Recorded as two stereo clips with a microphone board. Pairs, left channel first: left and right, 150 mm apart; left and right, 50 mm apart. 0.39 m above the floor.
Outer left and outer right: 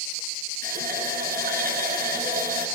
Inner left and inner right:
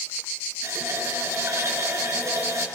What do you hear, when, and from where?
0.6 s a running tap: 75° right (ahead or behind), 4 m